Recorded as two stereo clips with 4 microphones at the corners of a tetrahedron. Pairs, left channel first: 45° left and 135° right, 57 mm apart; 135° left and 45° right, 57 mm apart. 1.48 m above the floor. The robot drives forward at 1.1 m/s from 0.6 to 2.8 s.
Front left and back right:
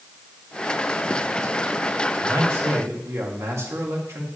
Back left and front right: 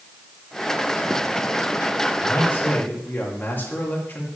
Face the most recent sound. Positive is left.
turn(degrees=-170)